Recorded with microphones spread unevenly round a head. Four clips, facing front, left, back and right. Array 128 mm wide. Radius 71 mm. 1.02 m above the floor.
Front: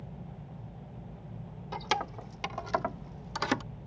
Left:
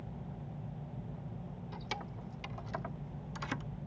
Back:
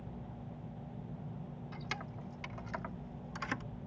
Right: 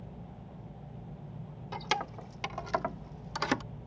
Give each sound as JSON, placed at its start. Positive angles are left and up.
{"t": 1.7, "sound": "keys jangling", "azimuth_deg": -30}